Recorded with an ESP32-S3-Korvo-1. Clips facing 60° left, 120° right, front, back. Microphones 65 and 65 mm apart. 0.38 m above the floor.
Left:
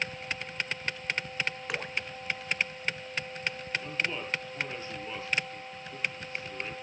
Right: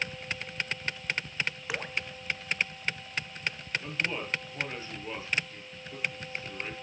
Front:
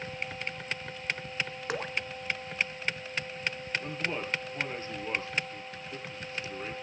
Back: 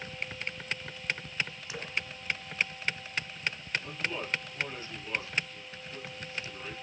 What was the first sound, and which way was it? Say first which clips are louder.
Dripping: even, front 7 dB; 35° right.